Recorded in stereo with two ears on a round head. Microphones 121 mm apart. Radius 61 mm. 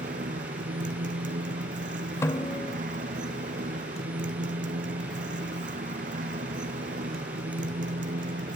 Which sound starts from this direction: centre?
A snare drum, at 2.2 s.